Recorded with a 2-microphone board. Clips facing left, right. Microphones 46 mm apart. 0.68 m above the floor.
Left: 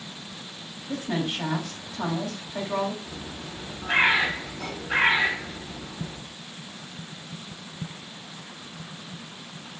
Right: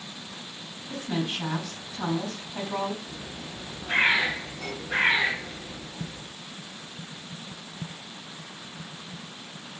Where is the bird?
85° left, 2 m.